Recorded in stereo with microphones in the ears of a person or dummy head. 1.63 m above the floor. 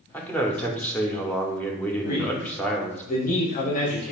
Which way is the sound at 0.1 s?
10° left (ahead or behind).